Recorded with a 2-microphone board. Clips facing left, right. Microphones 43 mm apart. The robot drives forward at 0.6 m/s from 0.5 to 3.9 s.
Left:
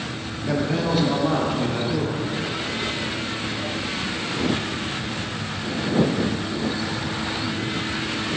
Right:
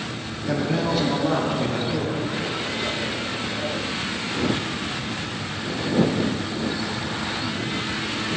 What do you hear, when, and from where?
0.5 s a man speaking: 5° left (ahead or behind), 1.1 m; by 2.3 s centre (ahead or behind), 2 m